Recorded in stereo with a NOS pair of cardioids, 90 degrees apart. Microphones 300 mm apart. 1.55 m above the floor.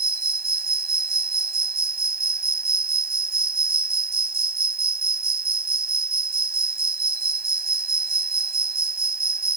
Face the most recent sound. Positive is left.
turn(degrees=-30)